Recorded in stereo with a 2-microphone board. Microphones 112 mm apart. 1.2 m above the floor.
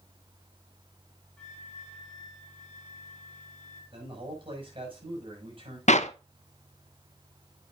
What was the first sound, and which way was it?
A flute, 10° left (ahead or behind).